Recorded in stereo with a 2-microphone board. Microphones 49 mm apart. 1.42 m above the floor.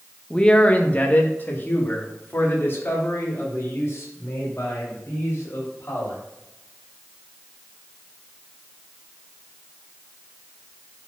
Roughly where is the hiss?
I don't hear a hiss.